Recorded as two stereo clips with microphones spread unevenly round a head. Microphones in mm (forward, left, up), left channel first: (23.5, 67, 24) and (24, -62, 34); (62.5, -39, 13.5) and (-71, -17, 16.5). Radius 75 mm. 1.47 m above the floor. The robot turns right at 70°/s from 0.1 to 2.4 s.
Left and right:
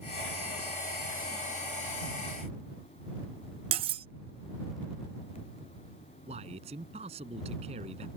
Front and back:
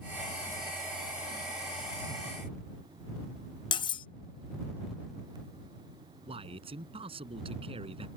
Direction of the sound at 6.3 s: 140° right.